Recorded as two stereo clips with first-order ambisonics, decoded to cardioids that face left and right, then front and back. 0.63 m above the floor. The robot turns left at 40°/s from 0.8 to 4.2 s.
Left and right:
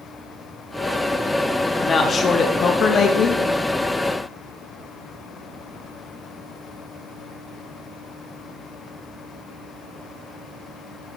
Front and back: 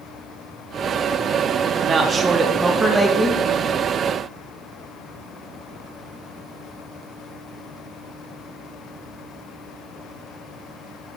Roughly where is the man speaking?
Behind left.